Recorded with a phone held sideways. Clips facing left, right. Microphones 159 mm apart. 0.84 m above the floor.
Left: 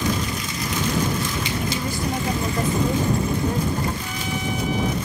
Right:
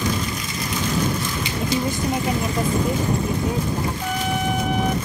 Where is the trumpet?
60° right (ahead or behind).